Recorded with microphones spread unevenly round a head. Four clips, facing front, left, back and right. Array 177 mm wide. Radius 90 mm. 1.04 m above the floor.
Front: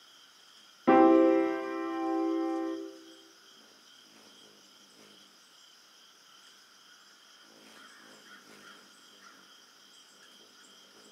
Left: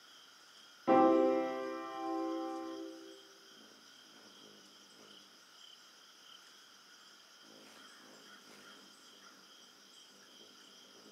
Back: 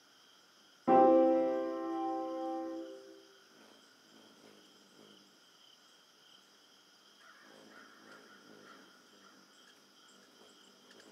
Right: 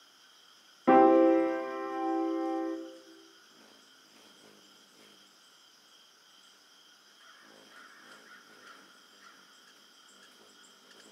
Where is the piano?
40° right, 0.6 m.